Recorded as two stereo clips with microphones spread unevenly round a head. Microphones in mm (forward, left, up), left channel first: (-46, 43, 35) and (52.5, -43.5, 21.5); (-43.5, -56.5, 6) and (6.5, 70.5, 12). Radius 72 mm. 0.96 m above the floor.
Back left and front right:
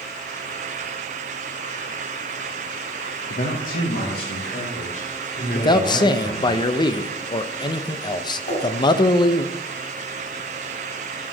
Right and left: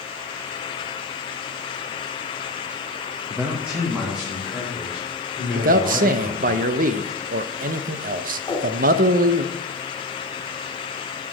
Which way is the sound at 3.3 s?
145° left.